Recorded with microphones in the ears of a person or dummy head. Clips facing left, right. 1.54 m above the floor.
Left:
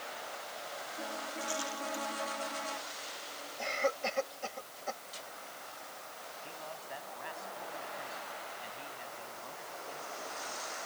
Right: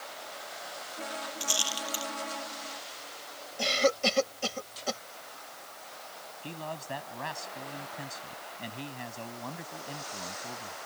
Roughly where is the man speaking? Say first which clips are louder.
Right 9 dB; right.